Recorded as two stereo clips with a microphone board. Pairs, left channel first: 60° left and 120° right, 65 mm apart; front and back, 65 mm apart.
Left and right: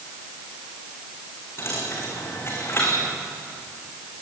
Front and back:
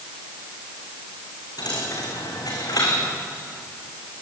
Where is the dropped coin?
10° left, 4 m.